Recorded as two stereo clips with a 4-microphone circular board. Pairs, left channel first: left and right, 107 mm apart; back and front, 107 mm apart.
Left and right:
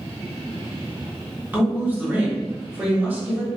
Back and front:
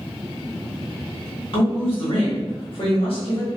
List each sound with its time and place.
1.5 s a woman speaking: 160° right, 1.3 m